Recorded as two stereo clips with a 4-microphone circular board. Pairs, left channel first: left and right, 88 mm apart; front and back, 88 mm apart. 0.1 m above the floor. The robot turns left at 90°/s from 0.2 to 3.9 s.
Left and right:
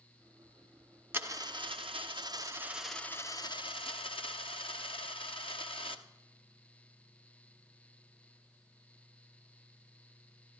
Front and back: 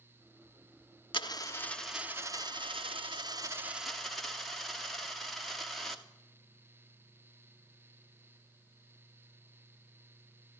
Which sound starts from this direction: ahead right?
A dropped coin, at 1.1 s.